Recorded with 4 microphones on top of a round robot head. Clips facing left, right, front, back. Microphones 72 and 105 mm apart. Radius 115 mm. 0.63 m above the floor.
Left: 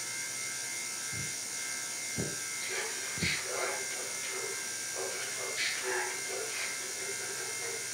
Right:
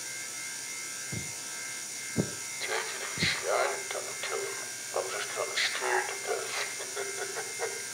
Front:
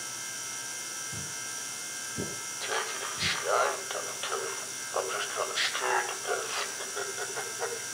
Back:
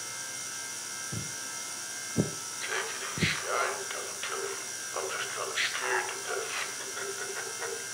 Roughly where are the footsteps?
Behind right.